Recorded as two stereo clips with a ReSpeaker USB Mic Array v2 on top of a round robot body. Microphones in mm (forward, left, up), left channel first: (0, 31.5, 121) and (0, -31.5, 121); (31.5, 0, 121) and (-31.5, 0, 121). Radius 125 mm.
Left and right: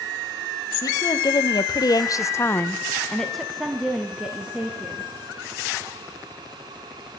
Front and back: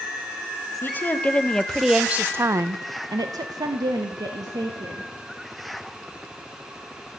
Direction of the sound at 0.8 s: 60° left.